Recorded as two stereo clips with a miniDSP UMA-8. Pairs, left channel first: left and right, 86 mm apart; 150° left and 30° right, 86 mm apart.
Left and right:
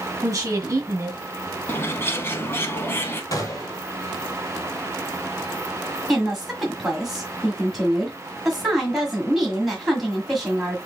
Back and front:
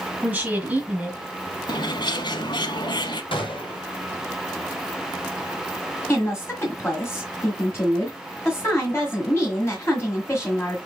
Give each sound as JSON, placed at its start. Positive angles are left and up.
{"t": 0.2, "sound": "a woman speaking", "azimuth_deg": -95, "distance_m": 1.4}
{"t": 1.7, "sound": "a bird", "azimuth_deg": 145, "distance_m": 0.7}
{"t": 3.3, "sound": "a gunshot", "azimuth_deg": 140, "distance_m": 1.3}
{"t": 6.1, "sound": "a woman speaking", "azimuth_deg": -175, "distance_m": 1.7}